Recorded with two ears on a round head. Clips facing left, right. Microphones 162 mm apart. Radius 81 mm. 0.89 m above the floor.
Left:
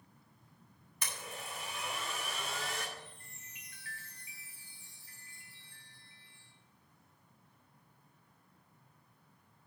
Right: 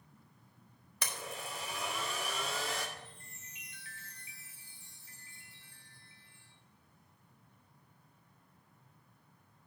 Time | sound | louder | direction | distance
1.0 | a blender | right 3 dB | 60° right (ahead or behind) | 1.6 m
3.0 | a chime | even | 20° right (ahead or behind) | 2.5 m